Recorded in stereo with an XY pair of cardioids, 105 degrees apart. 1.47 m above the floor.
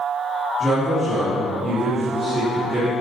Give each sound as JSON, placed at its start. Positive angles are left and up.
{"t": 0.6, "sound": "a man speaking", "azimuth_deg": -10, "distance_m": 3.0}